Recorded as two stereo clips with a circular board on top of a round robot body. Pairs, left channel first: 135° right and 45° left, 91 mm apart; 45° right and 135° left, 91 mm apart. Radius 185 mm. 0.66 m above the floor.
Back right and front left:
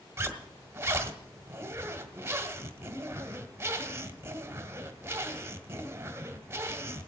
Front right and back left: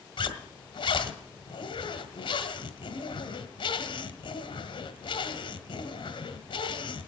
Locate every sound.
0.2 s a zipper: 20° right, 1.5 m